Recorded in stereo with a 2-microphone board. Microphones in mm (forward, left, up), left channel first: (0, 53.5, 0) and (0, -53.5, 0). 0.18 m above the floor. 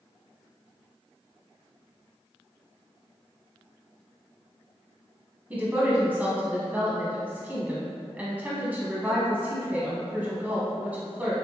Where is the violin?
I don't hear a violin.